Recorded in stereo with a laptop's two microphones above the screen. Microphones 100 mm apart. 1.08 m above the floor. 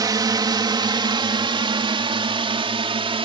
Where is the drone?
40° right (ahead or behind); by 3.2 s 70° right (ahead or behind).